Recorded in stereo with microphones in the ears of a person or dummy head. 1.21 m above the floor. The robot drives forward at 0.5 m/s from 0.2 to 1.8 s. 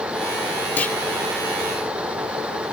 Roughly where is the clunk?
Centre.